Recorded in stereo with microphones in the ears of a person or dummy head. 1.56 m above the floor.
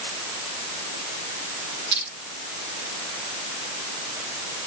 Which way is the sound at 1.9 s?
65° right (ahead or behind).